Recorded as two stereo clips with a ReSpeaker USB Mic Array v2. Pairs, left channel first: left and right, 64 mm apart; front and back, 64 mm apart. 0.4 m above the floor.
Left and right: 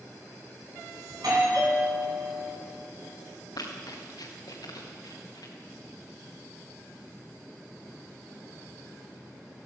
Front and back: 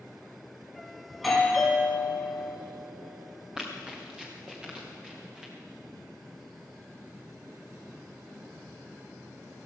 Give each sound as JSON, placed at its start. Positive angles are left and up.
{"t": 1.1, "sound": "a doorbell", "azimuth_deg": -90, "distance_m": 4.0}
{"t": 3.6, "sound": "running footsteps", "azimuth_deg": 100, "distance_m": 3.5}